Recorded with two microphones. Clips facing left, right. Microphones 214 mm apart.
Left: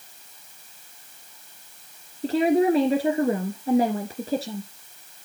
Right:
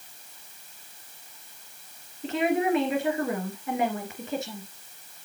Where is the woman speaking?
35° left (ahead or behind), 2 m.